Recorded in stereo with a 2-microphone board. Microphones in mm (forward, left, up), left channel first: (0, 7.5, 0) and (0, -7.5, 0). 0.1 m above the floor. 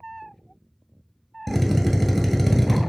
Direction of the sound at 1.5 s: Centre (ahead or behind).